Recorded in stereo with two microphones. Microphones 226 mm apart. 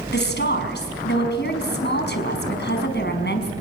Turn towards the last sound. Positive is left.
turn(degrees=45)  # may be behind; listen again after turning